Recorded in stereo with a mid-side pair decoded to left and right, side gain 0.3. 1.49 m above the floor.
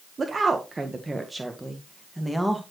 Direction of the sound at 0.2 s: 50° right.